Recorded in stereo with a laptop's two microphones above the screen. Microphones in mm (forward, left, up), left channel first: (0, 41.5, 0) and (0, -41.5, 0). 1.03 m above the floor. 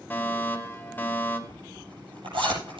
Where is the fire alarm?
25° left (ahead or behind), 1.8 m.